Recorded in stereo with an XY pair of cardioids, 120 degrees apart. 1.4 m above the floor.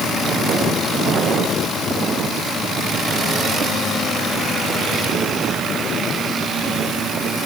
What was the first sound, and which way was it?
Only background noise.